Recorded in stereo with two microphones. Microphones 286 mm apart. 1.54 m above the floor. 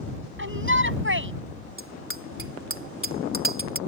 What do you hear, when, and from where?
0.4 s a shout: 40° right (ahead or behind)
1.8 s a bicycle bell: 45° right (ahead or behind)